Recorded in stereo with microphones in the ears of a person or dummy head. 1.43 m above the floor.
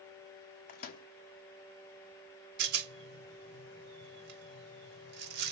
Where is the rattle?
55° right (ahead or behind), 1.0 m.